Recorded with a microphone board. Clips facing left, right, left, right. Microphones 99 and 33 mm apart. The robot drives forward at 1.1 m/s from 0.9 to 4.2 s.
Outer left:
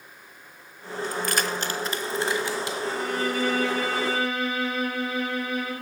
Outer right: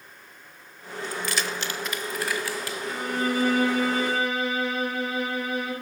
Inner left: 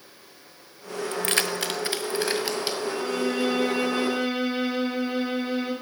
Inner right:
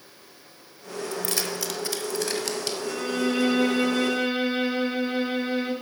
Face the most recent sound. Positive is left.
turn(degrees=-35)  # may be behind; listen again after turning